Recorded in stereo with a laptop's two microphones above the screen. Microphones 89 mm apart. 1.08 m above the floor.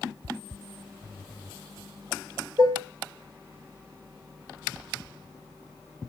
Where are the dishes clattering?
60° right (ahead or behind), 3 m.